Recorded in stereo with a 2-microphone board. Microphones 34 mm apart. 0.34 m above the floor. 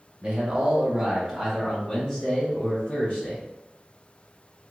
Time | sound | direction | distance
0.2 | a man speaking | 30° right (ahead or behind) | 1.1 m